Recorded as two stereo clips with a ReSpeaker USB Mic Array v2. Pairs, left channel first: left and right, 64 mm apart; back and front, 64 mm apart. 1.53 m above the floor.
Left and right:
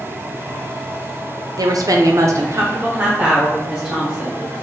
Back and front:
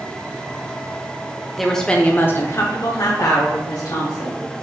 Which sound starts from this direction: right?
A woman speaking, at 1.6 s.